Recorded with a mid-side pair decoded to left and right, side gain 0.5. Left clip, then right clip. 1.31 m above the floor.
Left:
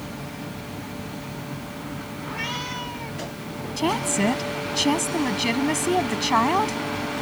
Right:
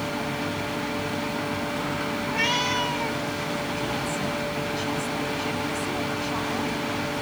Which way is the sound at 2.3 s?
40° right.